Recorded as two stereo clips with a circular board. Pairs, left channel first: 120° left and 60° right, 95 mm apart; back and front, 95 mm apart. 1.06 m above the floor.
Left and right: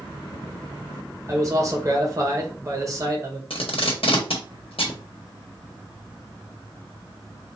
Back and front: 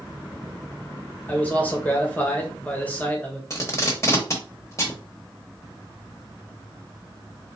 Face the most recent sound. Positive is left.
turn(degrees=120)